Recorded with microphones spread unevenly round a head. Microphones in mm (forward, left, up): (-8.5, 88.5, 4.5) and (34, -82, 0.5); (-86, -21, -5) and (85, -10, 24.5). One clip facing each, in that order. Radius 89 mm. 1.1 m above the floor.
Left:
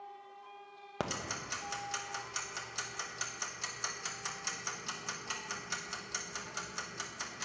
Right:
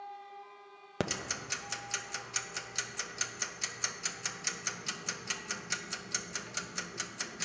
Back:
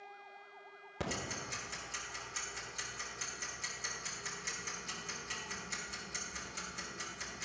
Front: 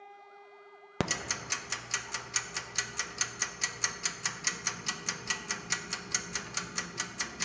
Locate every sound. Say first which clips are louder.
1.0 s ticking: right 3 dB, front 5 dB; 10° right, 0.5 m